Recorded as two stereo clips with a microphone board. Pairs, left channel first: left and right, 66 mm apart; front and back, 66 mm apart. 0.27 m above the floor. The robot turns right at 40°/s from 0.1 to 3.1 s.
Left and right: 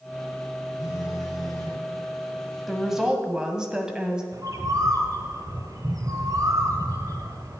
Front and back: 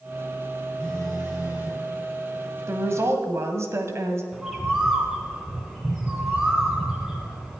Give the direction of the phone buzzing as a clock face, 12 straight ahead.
10 o'clock.